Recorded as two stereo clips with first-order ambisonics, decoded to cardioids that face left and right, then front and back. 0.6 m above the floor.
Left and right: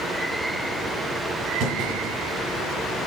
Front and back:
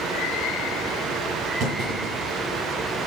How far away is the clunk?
About 8 m.